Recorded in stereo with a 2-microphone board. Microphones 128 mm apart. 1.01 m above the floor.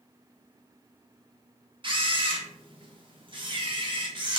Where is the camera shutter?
40° right (ahead or behind), 0.6 m.